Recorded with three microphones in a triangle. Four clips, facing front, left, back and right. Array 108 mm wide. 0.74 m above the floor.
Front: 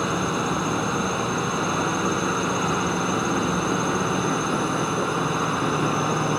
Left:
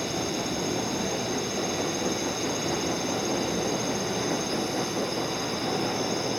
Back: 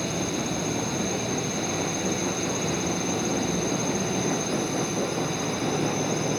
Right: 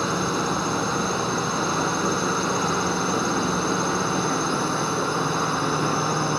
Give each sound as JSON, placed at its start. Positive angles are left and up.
{"t": 0.0, "sound": "a drone", "azimuth_deg": -50}